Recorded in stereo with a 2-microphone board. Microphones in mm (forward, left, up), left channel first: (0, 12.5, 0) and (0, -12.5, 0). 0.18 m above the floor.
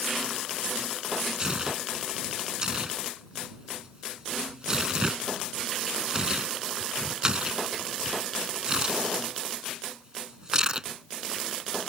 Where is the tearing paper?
30° right (ahead or behind).